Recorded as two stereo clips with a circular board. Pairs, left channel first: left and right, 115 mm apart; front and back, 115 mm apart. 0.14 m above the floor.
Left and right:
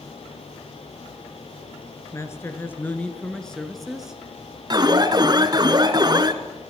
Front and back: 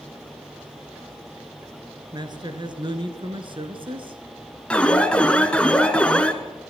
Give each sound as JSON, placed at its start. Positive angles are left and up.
{"t": 2.1, "sound": "a man speaking", "azimuth_deg": 145, "distance_m": 2.0}
{"t": 4.7, "sound": "an alarm", "azimuth_deg": -75, "distance_m": 1.4}